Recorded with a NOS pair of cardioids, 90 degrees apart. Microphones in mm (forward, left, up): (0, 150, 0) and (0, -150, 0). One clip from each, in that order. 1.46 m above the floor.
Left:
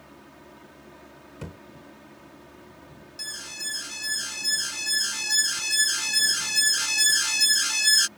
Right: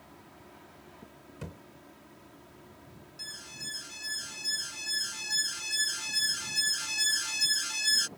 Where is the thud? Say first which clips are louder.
Left 4 dB; 25° left.